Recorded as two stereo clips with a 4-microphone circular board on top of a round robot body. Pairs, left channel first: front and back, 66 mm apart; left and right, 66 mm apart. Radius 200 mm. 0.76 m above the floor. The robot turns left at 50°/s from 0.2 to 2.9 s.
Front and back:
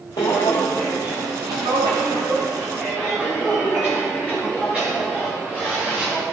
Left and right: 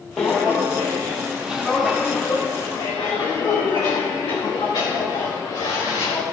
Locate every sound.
0.2 s footsteps: 5° left, 0.9 m; by 6.2 s 105° left, 5 m